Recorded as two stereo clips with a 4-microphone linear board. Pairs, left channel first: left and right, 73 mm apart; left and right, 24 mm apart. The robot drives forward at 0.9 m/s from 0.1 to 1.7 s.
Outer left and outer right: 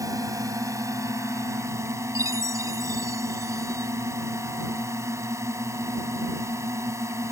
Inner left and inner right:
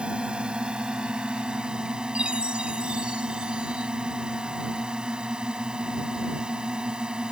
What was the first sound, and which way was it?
A drone, 50° right (ahead or behind).